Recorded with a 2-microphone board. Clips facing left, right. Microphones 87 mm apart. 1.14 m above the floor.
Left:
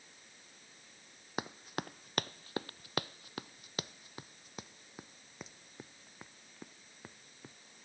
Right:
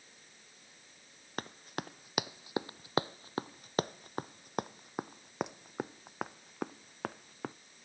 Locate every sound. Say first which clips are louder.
1.4 s running footsteps: left 1 dB; 10° left (ahead or behind); by 7.5 s 75° right (ahead or behind)